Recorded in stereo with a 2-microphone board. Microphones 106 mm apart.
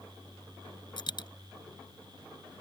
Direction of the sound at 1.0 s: 45° left (ahead or behind).